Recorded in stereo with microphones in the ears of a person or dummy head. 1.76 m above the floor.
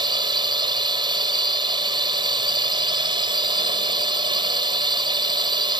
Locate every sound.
0.0 s a drone: 25° right (ahead or behind)